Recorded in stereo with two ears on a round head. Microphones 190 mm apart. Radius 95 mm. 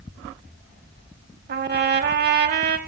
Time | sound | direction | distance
1.5 | a trumpet | 50° right (ahead or behind) | 0.8 m